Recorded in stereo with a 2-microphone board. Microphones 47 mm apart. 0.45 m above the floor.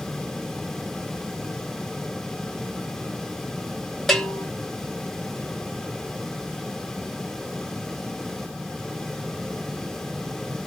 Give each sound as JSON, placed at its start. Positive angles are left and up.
{"t": 4.1, "sound": "a bell", "side_deg": 5, "distance_m": 0.8}